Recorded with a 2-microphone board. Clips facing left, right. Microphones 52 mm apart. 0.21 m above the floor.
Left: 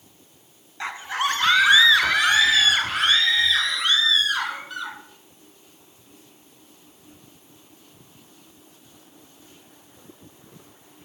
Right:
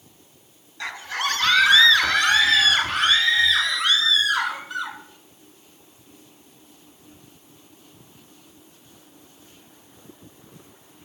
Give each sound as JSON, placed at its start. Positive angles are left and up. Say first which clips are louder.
{"t": 0.8, "sound": "a scream", "louder": "left 2 dB", "side_deg": 25, "distance_m": 2.0}